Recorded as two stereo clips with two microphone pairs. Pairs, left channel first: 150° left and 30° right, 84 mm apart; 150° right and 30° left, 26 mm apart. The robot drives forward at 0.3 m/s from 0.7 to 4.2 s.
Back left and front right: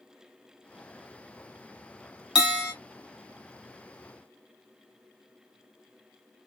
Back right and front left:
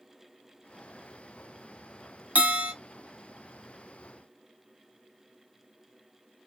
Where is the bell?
50° left, 1.1 m; by 2.7 s 55° left, 1.0 m.